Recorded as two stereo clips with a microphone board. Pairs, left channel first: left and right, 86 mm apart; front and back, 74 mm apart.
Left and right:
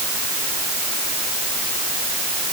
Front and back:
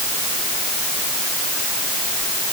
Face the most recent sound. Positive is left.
No sound to turn to.